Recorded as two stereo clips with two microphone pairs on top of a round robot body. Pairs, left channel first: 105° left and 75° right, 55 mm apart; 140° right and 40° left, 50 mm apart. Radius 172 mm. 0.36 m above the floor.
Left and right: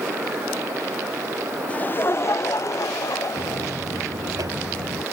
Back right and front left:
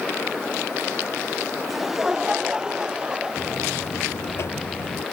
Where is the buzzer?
100° right.